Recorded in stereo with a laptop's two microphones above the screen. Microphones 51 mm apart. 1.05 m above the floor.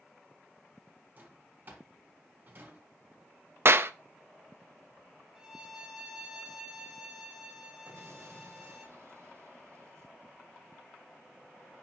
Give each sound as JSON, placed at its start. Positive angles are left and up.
{"t": 1.2, "sound": "a drawer", "side_deg": -40, "distance_m": 4.5}
{"t": 3.6, "sound": "a clap", "side_deg": -50, "distance_m": 0.6}
{"t": 5.3, "sound": "a violin", "side_deg": -5, "distance_m": 1.9}
{"t": 7.9, "sound": "an explosion", "side_deg": -65, "distance_m": 1.1}